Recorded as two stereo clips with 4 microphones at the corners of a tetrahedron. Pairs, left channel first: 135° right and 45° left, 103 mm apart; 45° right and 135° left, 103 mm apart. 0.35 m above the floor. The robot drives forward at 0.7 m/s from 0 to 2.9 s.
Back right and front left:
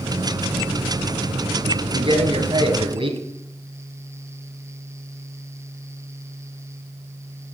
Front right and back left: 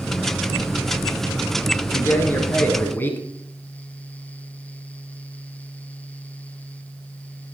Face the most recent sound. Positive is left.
turn(degrees=25)